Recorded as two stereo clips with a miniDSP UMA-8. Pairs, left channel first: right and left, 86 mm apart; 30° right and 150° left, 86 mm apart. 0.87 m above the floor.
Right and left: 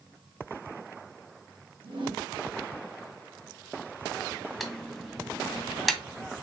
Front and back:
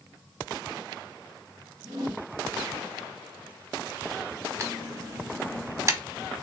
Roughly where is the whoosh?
Left.